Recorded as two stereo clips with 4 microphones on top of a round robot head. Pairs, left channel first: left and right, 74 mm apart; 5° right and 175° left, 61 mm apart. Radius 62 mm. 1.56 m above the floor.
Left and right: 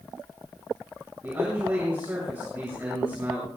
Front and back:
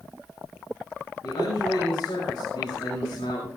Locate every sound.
1.2 s a man speaking: 20° right, 6.5 m